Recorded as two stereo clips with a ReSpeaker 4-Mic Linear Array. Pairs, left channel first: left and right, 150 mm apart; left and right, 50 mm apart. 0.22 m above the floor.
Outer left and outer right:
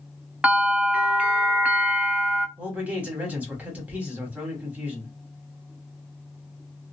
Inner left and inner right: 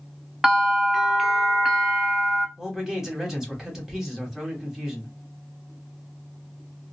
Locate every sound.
0.4 s a bell: 10° right (ahead or behind), 0.5 m
2.6 s a man speaking: 10° right (ahead or behind), 1.0 m